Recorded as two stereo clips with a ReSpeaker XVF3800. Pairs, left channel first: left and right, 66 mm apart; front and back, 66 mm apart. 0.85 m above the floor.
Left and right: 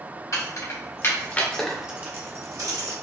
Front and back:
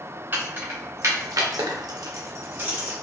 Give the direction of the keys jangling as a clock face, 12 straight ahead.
8 o'clock.